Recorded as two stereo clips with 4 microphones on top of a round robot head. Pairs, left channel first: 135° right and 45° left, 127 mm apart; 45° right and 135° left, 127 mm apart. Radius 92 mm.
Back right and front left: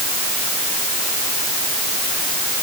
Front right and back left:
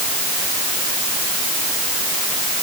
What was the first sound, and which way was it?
Only background noise.